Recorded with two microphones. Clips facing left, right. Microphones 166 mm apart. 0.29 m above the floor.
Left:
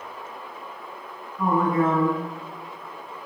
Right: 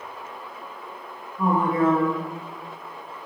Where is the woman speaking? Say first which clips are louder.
Even; 30° right (ahead or behind), 1.2 m.